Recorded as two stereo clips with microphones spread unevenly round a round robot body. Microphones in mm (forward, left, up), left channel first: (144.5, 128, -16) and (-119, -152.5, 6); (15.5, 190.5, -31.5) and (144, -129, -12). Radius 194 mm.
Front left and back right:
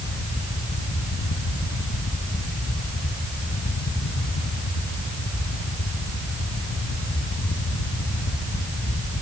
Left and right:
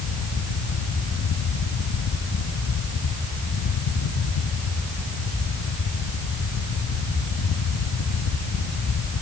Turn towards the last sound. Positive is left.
No sound to turn to.